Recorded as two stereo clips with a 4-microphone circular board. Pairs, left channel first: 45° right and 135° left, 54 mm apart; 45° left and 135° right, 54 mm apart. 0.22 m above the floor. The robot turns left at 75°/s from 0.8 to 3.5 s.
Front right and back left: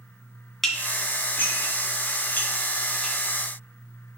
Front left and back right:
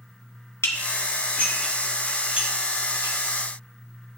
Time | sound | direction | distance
0.6 | dishes clattering | 40° left | 1.2 m